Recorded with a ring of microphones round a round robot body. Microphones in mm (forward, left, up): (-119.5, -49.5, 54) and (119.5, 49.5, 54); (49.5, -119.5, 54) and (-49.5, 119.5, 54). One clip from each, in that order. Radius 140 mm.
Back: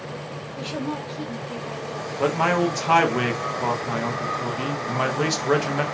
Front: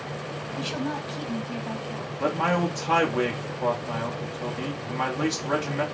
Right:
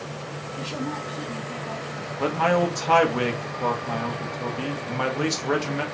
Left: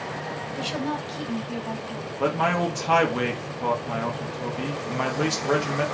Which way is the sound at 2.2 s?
140° right.